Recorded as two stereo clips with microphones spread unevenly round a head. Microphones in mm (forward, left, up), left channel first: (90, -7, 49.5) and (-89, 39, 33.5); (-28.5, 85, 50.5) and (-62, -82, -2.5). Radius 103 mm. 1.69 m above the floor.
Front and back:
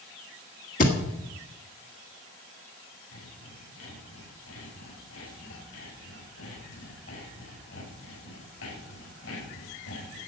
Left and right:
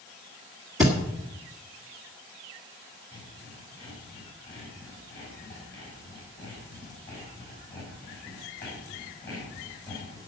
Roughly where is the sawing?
Ahead.